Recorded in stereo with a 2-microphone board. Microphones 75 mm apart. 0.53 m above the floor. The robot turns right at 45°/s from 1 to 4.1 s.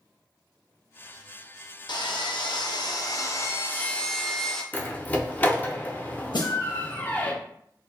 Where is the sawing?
70° left, 0.5 m; by 4.6 s 170° left, 0.5 m.